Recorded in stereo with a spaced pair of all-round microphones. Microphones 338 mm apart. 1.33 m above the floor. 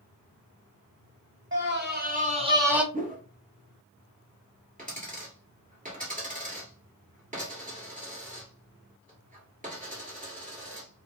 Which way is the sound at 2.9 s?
25° right (ahead or behind).